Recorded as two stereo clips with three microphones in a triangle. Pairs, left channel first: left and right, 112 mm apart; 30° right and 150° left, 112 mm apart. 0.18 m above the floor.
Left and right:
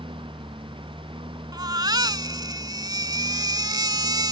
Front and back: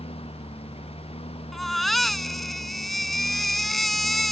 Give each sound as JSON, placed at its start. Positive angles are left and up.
{"t": 0.0, "sound": "a lawn mower", "azimuth_deg": -55}
{"t": 1.5, "sound": "a baby crying", "azimuth_deg": -120}